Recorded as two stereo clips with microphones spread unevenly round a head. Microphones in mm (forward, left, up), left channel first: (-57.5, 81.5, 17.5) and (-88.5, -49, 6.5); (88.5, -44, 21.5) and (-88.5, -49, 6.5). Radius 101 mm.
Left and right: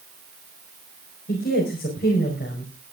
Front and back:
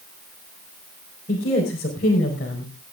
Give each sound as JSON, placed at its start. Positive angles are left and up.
{"t": 1.3, "sound": "a woman speaking", "azimuth_deg": 50, "distance_m": 5.0}